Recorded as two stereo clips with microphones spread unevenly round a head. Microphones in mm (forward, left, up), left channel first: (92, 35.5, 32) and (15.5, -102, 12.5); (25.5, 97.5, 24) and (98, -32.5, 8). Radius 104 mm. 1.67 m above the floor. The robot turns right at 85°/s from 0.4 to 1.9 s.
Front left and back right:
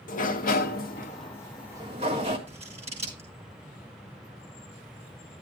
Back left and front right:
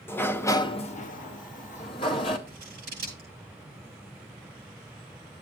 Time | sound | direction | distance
0.1 | a sliding door | 50° left | 0.9 m
2.5 | scissors | 75° right | 6 m